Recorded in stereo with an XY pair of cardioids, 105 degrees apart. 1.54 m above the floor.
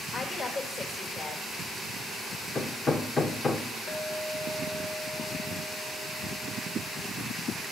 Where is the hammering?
35° left, 0.9 m.